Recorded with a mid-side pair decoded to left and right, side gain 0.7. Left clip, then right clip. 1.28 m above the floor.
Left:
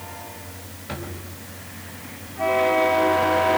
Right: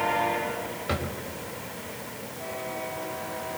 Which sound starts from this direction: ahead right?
A drawer, at 0.9 s.